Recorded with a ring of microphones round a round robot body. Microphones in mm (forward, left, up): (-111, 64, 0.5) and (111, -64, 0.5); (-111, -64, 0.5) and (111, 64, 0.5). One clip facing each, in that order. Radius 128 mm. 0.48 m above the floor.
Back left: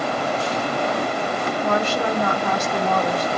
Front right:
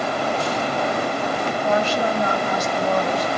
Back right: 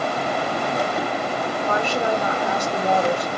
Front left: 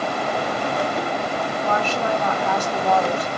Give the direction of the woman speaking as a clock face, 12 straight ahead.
7 o'clock.